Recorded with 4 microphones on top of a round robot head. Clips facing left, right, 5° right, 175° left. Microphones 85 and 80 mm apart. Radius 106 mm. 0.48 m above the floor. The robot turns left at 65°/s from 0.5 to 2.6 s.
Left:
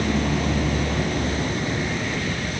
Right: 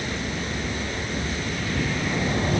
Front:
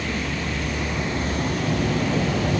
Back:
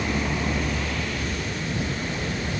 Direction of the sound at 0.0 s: 100° left.